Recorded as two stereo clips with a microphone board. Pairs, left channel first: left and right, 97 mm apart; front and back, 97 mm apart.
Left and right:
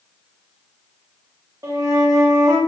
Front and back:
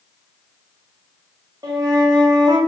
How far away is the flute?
About 0.7 m.